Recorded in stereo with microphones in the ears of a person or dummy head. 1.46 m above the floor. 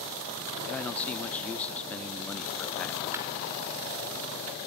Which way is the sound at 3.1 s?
10° right (ahead or behind).